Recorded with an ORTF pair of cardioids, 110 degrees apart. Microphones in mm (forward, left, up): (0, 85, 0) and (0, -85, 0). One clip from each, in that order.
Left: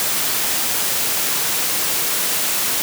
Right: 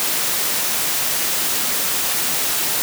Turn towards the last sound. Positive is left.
No sound to turn to.